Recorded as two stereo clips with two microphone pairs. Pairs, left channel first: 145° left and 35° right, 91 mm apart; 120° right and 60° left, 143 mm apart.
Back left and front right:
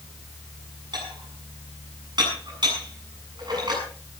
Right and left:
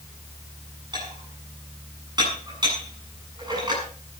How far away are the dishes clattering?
About 7.5 m.